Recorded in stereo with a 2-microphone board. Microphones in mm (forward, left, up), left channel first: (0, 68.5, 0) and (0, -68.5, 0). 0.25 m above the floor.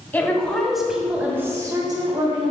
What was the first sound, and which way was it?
A woman speaking, 10° left (ahead or behind).